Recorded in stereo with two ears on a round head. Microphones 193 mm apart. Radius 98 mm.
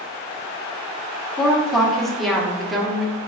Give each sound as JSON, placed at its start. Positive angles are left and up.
{"t": 1.4, "sound": "a woman speaking", "side_deg": 0, "distance_m": 0.8}